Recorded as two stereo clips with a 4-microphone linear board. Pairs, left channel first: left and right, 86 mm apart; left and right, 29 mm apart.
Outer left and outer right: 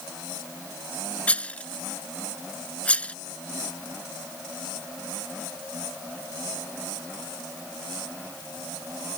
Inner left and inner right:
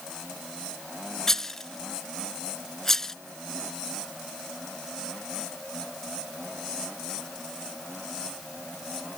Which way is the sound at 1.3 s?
15° left (ahead or behind).